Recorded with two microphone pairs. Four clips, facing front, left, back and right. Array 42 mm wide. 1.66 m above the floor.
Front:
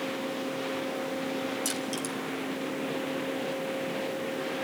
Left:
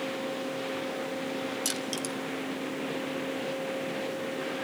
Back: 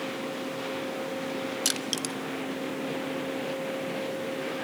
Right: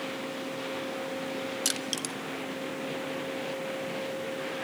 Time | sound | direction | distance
1.6 | crushing | 150° right | 1.7 m